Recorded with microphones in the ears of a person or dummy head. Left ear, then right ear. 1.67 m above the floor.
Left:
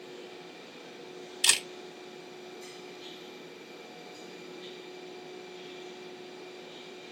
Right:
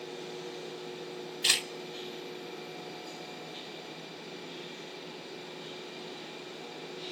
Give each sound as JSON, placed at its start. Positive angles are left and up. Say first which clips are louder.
{"t": 1.4, "sound": "a camera shutter", "louder": "left 1 dB", "side_deg": 55, "distance_m": 3.0}